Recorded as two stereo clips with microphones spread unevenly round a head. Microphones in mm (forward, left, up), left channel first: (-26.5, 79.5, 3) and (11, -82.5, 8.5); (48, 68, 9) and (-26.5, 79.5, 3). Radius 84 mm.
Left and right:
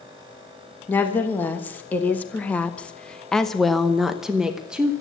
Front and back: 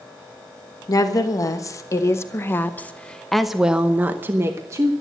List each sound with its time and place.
0.9 s a woman speaking: 25° left, 1.5 m; by 4.9 s 160° right, 1.1 m